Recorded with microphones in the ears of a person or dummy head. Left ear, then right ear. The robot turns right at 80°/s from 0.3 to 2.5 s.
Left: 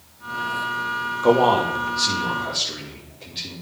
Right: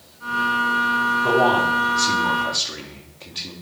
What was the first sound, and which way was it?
A man speaking, 60° left (ahead or behind).